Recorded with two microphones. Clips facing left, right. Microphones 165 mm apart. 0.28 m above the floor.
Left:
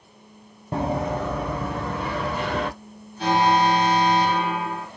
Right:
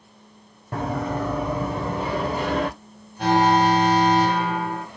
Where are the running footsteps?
20° left (ahead or behind), 0.8 m; by 2.7 s 35° right (ahead or behind), 1.3 m.